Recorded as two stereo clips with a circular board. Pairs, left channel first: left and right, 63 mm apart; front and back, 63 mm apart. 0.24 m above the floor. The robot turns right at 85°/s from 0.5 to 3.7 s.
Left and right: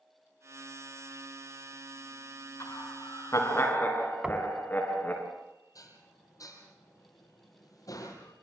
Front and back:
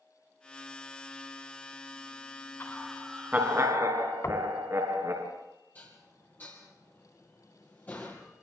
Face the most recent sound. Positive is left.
turn(degrees=65)